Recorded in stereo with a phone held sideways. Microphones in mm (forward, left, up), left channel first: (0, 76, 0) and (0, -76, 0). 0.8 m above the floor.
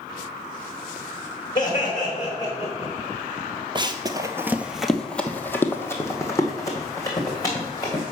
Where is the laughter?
25° left (ahead or behind), 2.5 m; by 2.9 s 30° left (ahead or behind), 3.5 m.